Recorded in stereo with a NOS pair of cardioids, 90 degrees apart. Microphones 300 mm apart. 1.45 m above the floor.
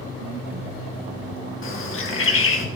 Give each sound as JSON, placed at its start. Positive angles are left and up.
{"t": 1.6, "sound": "a bird", "azimuth_deg": 45, "distance_m": 2.0}